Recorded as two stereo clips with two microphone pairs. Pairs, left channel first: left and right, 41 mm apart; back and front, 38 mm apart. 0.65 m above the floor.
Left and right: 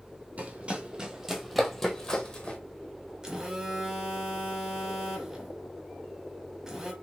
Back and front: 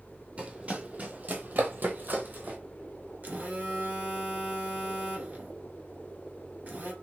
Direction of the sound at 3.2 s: 20° right.